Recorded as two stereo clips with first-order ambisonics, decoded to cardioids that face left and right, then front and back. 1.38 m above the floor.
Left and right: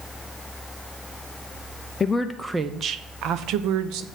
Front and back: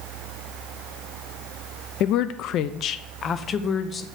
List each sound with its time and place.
2.0 s a woman speaking: 20° left, 0.5 m; by 4.0 s 70° right, 1.0 m